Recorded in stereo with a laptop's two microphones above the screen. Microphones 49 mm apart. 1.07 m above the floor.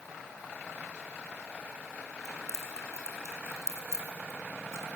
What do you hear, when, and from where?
2.2 s keys jangling: 75° right (ahead or behind), 3 m